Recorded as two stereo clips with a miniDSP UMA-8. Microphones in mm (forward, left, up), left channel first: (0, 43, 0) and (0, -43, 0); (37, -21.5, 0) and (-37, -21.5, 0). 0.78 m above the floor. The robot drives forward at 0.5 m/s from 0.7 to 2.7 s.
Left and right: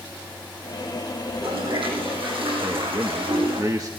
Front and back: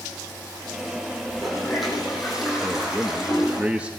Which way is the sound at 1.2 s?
90° right.